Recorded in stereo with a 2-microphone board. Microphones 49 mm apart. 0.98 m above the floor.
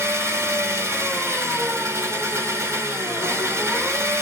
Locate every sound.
0.0 s an engine running: 70° right (ahead or behind), 1.4 m